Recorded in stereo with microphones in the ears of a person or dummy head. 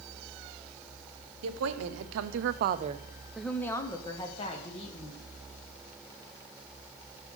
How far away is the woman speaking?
About 1.0 m.